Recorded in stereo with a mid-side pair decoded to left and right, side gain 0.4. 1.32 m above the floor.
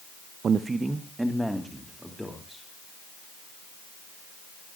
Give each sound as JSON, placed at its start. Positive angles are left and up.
{"t": 0.4, "sound": "a man speaking", "azimuth_deg": -60, "distance_m": 0.6}